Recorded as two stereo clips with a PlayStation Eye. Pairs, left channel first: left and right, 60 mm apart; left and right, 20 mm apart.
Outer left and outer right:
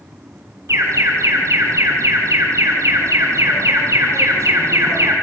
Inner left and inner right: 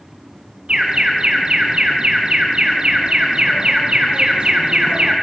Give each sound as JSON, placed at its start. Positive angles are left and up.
{"t": 0.7, "sound": "an alarm", "side_deg": -60, "distance_m": 5.0}